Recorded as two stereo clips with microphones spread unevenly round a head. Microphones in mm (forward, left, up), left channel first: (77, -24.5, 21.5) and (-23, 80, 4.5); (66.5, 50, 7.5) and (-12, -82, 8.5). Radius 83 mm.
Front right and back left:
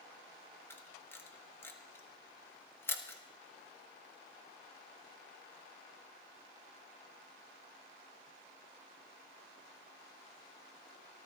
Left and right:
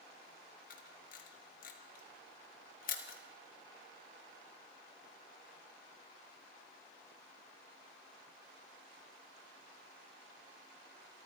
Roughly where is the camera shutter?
Ahead left.